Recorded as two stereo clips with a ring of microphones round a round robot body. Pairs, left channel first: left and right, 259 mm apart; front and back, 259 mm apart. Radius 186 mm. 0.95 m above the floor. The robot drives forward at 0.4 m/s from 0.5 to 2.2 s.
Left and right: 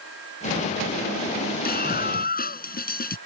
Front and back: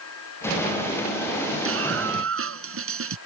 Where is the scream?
145° left.